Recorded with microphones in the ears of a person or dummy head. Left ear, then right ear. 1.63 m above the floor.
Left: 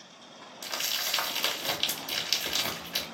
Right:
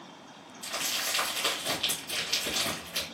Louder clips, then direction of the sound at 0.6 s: Left 1 dB; 60° left (ahead or behind).